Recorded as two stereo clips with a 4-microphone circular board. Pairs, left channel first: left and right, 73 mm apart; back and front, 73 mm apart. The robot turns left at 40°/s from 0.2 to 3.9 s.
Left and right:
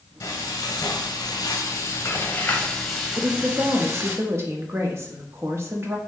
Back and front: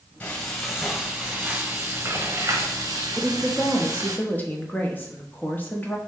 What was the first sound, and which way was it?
Frying, 110° left.